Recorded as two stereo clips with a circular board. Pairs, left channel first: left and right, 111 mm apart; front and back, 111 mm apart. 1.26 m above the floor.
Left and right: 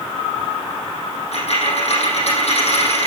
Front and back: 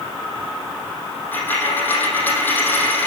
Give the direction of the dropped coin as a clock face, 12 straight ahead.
10 o'clock.